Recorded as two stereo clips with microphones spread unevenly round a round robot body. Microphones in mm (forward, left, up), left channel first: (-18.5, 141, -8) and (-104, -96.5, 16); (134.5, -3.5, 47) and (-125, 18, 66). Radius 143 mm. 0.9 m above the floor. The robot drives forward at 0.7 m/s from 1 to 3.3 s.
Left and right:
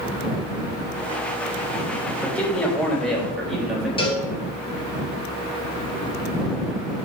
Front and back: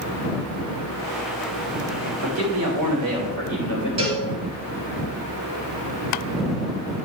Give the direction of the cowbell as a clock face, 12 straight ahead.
7 o'clock.